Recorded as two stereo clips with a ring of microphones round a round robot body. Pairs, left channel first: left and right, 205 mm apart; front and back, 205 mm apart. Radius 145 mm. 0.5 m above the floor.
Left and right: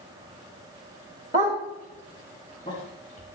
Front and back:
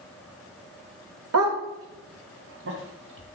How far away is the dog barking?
About 1.1 m.